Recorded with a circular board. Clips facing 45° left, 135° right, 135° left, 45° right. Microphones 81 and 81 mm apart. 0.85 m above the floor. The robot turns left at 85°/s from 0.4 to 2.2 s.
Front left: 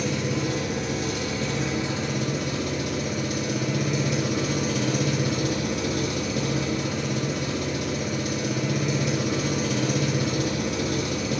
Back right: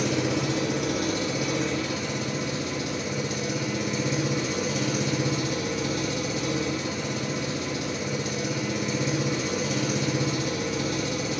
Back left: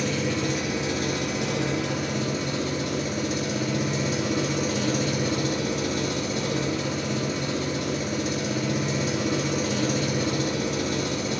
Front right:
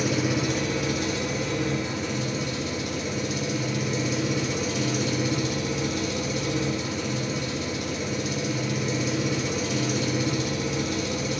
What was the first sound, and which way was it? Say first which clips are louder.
An engine running: back right 1 dB, front right 1 dB; 125° right.